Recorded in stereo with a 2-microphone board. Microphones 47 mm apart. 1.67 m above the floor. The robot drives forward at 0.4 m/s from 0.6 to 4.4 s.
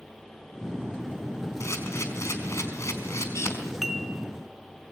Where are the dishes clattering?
5° right (ahead or behind), 2 m.